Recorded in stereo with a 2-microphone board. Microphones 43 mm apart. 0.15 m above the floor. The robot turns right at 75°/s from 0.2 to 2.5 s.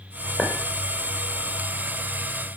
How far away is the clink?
About 4.5 m.